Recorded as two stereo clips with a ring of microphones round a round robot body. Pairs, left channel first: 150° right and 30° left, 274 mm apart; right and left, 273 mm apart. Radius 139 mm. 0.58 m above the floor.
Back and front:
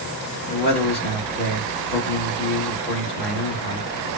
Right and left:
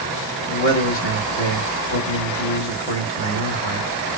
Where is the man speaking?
110° right, 1.6 m.